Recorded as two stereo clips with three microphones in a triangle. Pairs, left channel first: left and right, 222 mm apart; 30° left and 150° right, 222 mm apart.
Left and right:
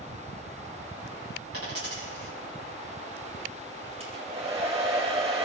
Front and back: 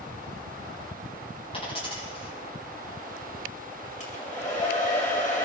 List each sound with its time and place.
1.5 s a dropped coin: 95° left, 9 m
4.0 s a hair dryer: 25° right, 4.5 m